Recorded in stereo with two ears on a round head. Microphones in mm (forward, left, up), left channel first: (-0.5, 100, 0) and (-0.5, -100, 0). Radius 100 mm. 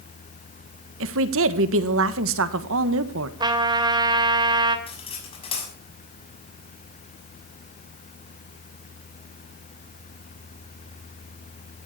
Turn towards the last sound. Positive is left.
turn(degrees=25)  # may be behind; listen again after turning